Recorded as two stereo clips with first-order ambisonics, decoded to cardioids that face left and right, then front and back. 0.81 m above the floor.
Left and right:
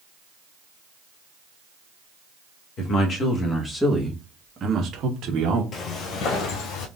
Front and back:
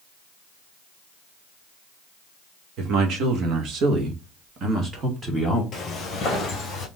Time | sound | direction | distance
2.8 | a man speaking | 145° left | 1.5 m
5.7 | footsteps | 55° left | 1.0 m